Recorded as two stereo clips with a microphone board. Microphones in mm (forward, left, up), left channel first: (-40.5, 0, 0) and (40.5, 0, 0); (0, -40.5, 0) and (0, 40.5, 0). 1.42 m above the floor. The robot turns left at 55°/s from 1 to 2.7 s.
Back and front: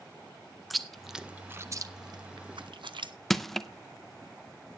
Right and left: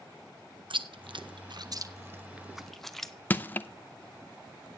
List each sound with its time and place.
0.7 s chewing: 90° left, 0.7 m; by 3.1 s 5° right, 0.7 m
3.3 s crushing: 95° right, 0.5 m